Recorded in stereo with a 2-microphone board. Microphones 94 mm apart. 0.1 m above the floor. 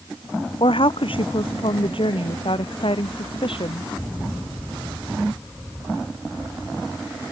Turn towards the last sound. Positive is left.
turn(degrees=65)  # may be behind; listen again after turning